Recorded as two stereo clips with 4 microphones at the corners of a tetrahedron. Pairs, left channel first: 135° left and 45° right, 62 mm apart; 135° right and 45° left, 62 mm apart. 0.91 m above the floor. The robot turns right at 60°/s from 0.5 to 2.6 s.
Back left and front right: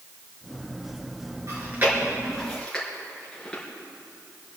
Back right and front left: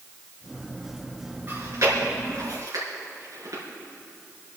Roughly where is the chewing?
Ahead.